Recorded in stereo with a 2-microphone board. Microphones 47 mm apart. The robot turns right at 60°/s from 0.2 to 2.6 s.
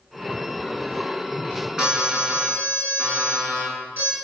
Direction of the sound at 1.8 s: 165° right.